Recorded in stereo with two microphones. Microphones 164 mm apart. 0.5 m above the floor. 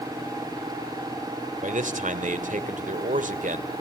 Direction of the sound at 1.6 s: 50° right (ahead or behind).